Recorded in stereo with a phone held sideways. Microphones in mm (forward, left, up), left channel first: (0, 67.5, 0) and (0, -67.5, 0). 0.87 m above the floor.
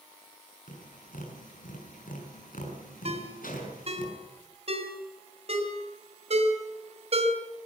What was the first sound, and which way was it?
Tapping, 90° left.